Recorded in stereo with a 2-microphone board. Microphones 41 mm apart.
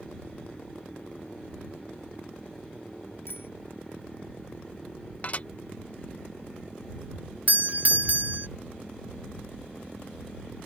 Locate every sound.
3.3 s a bicycle bell: 70° left (ahead or behind)
5.2 s dishes clattering: 40° left (ahead or behind)
7.5 s a doorbell: 40° right (ahead or behind)